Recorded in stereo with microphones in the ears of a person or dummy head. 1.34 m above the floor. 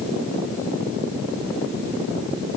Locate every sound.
Only background noise.